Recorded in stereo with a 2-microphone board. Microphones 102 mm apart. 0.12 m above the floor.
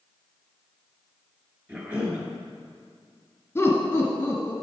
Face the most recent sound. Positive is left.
turn(degrees=25)  # may be behind; listen again after turning